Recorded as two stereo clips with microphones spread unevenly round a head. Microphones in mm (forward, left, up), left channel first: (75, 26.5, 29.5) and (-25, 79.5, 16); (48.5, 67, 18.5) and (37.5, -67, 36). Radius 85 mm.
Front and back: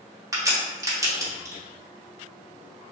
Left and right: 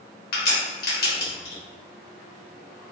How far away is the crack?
About 1.1 m.